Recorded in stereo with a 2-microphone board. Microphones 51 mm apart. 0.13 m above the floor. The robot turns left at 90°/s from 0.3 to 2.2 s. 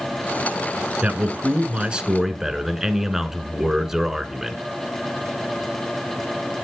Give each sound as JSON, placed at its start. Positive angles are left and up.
{"t": 1.0, "sound": "a man speaking", "side_deg": -25, "distance_m": 1.2}